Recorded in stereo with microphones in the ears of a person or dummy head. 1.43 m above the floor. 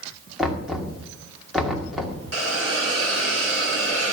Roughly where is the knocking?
Centre.